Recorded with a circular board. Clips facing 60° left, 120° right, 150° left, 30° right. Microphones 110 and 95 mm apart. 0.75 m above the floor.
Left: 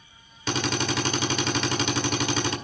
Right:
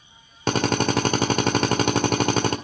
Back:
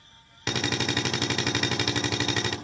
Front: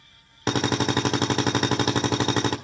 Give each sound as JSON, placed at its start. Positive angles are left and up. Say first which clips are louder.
{"t": 0.5, "sound": "a drill", "louder": "right 6 dB, front 6 dB", "azimuth_deg": -85, "distance_m": 1.7}